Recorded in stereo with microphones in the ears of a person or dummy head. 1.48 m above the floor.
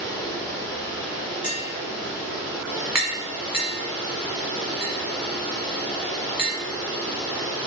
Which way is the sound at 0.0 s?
Centre (ahead or behind).